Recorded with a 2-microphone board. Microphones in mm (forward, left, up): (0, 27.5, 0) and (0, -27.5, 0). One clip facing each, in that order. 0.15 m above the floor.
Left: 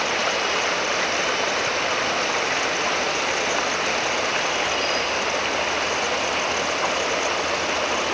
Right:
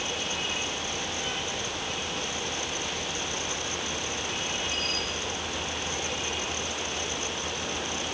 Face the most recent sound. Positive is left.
turn(degrees=70)  # may be behind; listen again after turning